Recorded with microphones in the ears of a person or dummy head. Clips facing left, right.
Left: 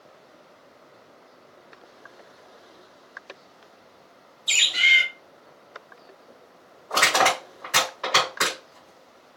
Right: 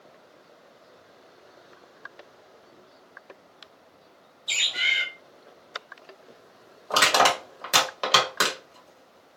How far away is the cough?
I don't hear a cough.